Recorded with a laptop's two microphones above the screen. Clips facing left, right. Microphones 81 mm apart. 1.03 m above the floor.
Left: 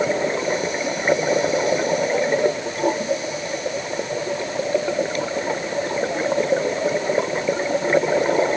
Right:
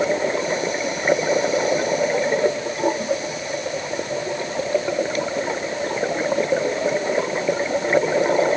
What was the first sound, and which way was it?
Only background noise.